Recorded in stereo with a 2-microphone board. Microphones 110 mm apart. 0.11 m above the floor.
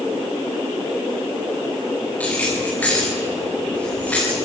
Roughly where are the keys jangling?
Centre.